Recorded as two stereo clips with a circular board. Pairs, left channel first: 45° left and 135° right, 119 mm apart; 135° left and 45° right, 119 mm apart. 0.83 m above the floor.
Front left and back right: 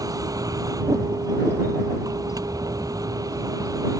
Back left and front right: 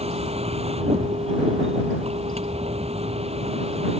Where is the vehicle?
75° right.